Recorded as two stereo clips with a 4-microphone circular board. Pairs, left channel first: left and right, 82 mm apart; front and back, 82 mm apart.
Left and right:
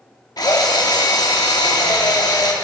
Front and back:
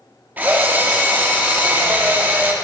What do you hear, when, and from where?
0.4 s a drill: 115° left, 1.0 m